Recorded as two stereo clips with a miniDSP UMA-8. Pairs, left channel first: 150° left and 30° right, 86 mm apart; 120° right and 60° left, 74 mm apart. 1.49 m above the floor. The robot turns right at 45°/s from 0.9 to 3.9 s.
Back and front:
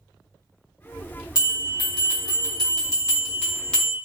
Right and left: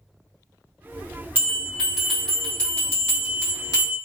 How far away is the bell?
About 0.9 m.